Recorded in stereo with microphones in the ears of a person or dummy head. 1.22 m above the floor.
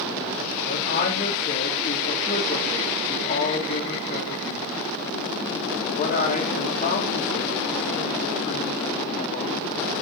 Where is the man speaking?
40° left (ahead or behind), 1.1 m.